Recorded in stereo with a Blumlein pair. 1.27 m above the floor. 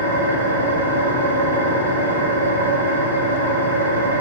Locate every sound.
0.0 s an engine running: 65° right, 0.9 m